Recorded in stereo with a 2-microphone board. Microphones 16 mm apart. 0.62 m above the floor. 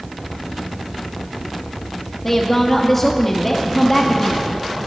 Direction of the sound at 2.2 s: 20° left (ahead or behind).